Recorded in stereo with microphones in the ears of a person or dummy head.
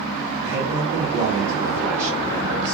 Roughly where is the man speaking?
Centre.